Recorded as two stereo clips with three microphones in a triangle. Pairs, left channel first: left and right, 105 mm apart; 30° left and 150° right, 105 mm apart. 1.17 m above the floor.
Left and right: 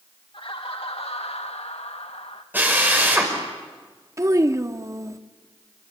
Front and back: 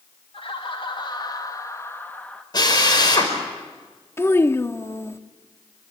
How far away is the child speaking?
About 1.1 m.